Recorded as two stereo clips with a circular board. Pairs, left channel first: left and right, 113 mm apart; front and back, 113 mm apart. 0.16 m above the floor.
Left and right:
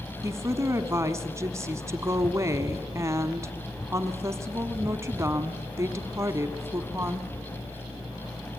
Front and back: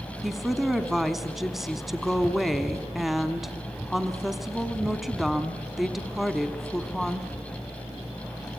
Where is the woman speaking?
95° right, 1.1 m.